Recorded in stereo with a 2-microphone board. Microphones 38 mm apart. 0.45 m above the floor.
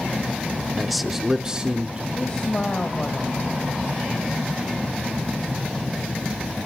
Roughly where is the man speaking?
Centre.